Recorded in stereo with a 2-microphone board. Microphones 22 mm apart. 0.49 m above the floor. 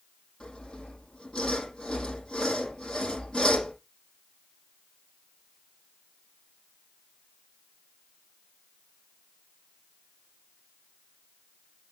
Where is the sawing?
40° left (ahead or behind), 6 m.